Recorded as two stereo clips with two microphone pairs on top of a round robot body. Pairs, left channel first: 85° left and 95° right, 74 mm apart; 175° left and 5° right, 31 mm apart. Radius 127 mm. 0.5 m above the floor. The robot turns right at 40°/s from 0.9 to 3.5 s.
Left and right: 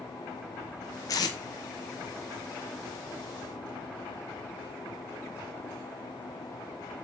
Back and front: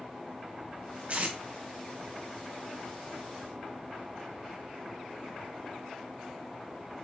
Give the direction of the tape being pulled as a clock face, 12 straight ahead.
11 o'clock.